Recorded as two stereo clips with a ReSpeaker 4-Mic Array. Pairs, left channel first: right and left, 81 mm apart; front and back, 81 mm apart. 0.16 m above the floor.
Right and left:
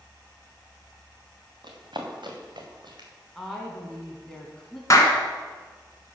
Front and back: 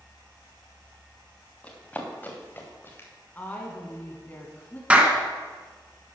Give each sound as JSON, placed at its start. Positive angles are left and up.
{"t": 1.6, "sound": "running footsteps", "azimuth_deg": 75, "distance_m": 3.0}
{"t": 3.4, "sound": "a woman speaking", "azimuth_deg": -20, "distance_m": 1.2}
{"t": 4.9, "sound": "a clap", "azimuth_deg": -115, "distance_m": 1.6}